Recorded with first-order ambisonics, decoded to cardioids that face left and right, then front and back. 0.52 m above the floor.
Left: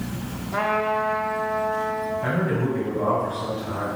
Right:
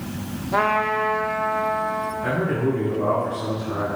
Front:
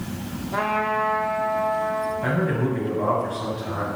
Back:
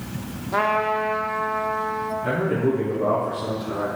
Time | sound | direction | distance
0.5 | a trumpet | 120° right | 0.8 m
2.2 | a man speaking | 25° left | 2 m